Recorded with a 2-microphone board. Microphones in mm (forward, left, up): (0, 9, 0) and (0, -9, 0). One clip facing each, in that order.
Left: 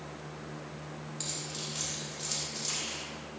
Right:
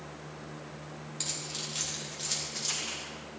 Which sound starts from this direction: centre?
Keys jangling, at 1.2 s.